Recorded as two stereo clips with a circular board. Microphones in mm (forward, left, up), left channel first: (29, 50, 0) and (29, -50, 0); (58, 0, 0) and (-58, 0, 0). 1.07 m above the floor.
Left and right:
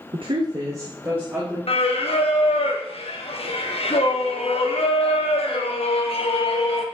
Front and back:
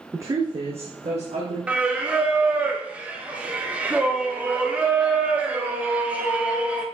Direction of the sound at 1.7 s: 100° left.